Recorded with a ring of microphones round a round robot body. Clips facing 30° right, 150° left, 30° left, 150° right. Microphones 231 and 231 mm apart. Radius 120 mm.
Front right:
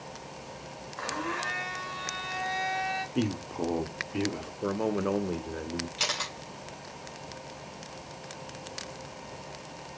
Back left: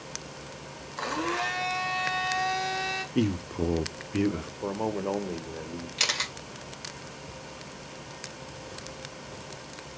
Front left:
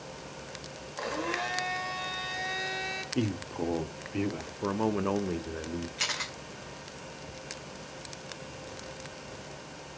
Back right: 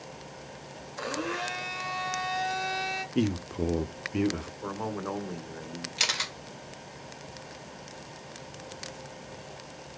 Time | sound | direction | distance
1.0 | a blender | 130° left | 1.6 m
3.1 | a man speaking | 175° left | 1.1 m
4.6 | a man speaking | 40° left | 1.0 m
6.0 | a camera shutter | 160° right | 2 m